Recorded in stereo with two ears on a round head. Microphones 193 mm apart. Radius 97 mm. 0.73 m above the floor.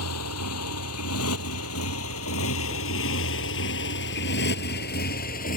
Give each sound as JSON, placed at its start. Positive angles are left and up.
{"t": 0.0, "sound": "a motorcycle", "side_deg": 90}